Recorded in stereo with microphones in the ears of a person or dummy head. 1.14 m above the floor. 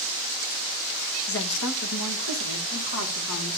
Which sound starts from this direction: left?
A woman speaking, at 1.3 s.